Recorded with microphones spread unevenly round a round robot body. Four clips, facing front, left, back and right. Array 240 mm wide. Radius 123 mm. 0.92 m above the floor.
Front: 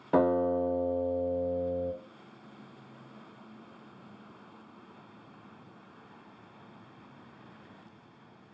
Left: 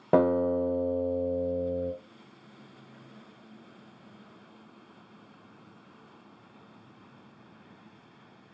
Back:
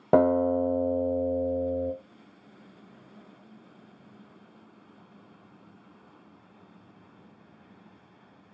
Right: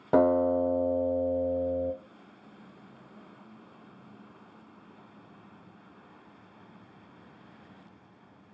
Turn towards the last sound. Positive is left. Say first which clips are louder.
# right 1 dB, back 4 dB
turn(degrees=160)